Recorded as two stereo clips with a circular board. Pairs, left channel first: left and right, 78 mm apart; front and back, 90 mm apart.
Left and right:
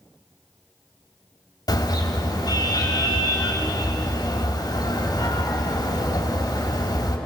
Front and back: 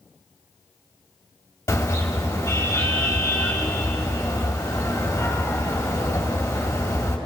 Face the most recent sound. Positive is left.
turn(degrees=60)